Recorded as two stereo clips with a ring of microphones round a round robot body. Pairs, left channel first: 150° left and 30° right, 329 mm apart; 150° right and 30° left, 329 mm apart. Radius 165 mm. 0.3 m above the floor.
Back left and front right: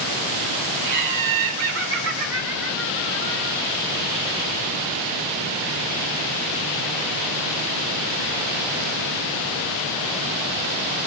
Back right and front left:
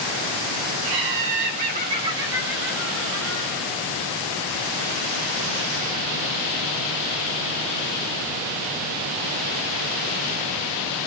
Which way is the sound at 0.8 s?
15° left.